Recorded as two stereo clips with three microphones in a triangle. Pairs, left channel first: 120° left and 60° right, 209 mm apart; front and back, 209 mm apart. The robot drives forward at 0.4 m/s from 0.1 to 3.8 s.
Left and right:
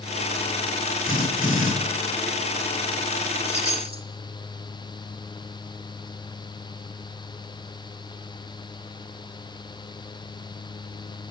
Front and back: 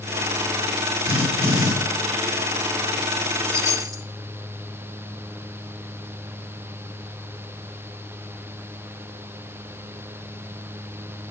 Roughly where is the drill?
Behind.